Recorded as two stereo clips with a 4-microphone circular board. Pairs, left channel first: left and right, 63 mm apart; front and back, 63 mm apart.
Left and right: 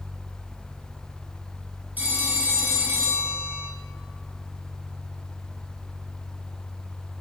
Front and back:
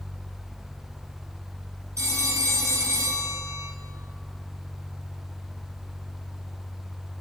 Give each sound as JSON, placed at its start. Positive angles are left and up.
{"t": 2.0, "sound": "a phone ringing", "azimuth_deg": -150, "distance_m": 2.0}